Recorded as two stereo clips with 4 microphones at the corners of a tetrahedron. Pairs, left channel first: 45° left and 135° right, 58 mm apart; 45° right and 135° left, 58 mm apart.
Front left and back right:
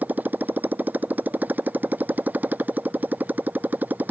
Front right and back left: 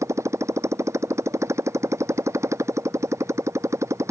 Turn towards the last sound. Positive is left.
turn(degrees=165)